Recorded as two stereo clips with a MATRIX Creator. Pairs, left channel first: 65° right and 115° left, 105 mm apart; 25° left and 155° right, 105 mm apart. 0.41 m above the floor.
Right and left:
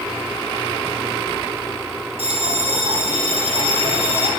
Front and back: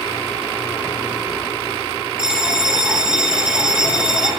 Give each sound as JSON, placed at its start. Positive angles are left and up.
{"t": 2.2, "sound": "a bell", "azimuth_deg": 120, "distance_m": 0.9}